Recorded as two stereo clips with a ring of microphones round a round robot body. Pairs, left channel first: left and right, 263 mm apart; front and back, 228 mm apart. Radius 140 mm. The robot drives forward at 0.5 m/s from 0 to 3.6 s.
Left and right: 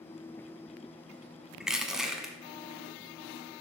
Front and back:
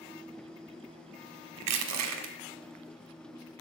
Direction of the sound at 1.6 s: Straight behind.